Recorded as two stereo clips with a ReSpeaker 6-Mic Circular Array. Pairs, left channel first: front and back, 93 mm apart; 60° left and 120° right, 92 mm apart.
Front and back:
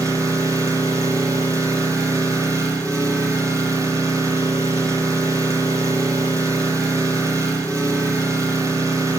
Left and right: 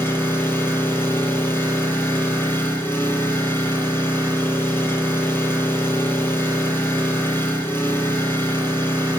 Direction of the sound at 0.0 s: 125° left.